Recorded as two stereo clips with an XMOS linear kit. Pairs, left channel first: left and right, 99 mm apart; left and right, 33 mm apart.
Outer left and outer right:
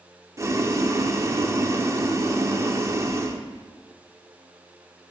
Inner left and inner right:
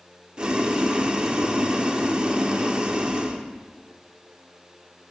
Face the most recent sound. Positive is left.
turn(degrees=-30)  # may be behind; listen again after turning